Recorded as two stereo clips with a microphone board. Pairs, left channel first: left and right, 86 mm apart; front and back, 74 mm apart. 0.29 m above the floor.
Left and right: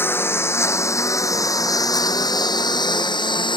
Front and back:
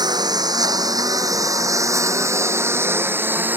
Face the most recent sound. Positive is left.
turn(degrees=115)